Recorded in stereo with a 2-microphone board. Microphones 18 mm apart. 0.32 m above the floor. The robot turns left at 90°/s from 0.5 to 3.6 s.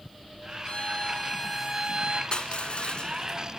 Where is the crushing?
120° left, 1.2 m; by 3.4 s 25° left, 1.2 m.